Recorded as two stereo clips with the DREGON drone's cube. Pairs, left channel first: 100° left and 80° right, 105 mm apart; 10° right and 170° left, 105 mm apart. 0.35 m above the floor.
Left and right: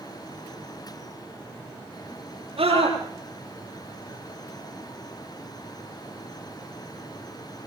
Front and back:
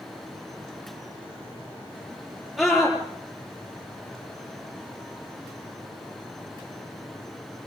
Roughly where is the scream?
Right.